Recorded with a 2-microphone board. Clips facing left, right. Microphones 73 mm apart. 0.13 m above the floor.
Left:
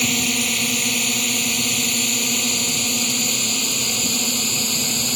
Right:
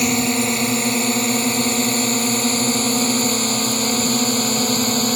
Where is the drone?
30° right (ahead or behind); by 5.2 s 40° right (ahead or behind).